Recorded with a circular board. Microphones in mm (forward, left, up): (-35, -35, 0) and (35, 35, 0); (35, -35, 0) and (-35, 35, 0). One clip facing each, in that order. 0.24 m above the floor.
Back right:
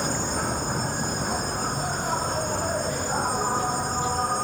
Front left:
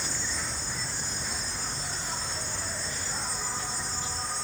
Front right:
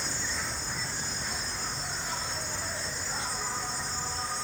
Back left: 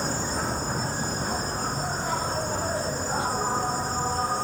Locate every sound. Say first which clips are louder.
0.0 s an insect: back right 10 dB, back left 8 dB; 175° right